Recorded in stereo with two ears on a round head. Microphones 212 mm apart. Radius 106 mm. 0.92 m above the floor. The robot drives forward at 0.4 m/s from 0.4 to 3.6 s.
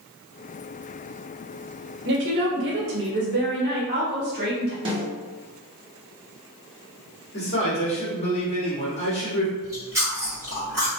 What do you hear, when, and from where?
2.0 s a woman speaking: 50° right (ahead or behind), 0.7 m; by 4.8 s 45° right (ahead or behind), 0.8 m
4.8 s a snare drum: 25° right (ahead or behind), 1.0 m
7.3 s a man speaking: 30° left (ahead or behind), 1.1 m
9.6 s chewing: 10° right (ahead or behind), 1.2 m